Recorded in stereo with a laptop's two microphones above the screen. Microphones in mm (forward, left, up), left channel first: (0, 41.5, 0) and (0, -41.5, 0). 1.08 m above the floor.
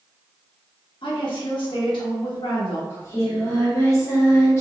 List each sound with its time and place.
1.0 s a woman speaking: 85° left, 1.1 m
2.9 s singing: 35° left (ahead or behind), 1.1 m